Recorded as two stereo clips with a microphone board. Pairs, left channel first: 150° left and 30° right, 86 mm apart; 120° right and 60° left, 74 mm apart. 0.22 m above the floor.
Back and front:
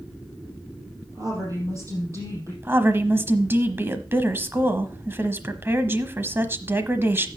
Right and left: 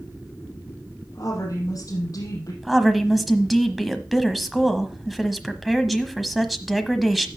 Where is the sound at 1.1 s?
80° right, 5.5 m; by 2.5 s 85° right, 6 m.